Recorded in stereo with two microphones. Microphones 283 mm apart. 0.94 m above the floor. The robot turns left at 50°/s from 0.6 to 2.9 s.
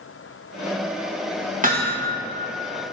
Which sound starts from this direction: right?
Hammering, at 1.6 s.